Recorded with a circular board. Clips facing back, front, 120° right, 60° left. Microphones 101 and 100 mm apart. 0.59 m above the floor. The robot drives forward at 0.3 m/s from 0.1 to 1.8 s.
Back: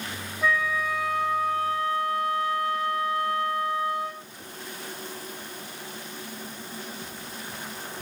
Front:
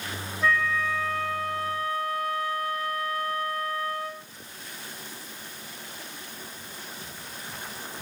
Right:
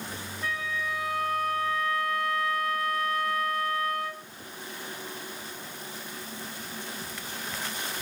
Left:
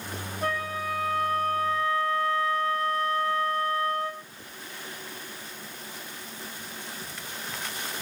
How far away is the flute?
About 1.4 m.